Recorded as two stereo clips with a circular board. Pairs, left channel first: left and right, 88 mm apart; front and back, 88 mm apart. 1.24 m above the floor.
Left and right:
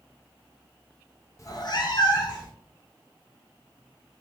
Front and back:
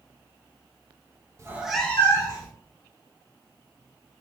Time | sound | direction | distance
1.4 | a cat meowing | 135° left | 0.6 m